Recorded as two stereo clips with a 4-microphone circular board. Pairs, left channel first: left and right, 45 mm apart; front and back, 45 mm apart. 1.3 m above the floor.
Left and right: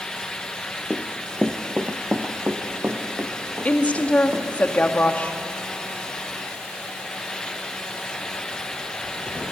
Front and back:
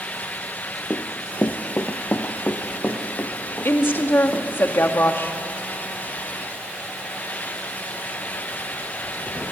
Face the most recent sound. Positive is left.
turn(degrees=35)